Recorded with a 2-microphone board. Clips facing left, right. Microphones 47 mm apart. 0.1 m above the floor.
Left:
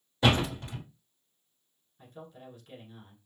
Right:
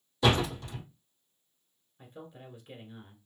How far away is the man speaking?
About 1.1 m.